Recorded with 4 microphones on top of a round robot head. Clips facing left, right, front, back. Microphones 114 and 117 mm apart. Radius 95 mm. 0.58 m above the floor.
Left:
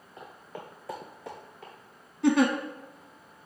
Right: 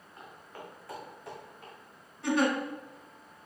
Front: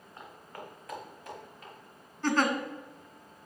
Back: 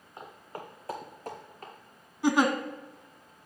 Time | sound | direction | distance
0.2 | footsteps | 110° left | 1.6 m
2.2 | a giggle | 105° left | 0.8 m